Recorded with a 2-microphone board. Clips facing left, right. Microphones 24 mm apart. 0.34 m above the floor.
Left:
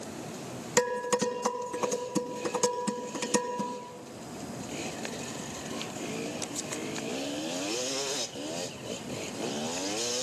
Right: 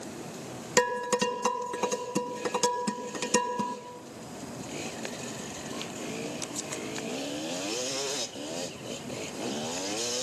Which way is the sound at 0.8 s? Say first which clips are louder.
Right 1 dB; 30° right (ahead or behind).